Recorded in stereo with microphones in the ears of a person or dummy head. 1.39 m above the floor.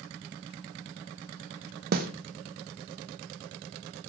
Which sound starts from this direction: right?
A snare drum, at 1.9 s.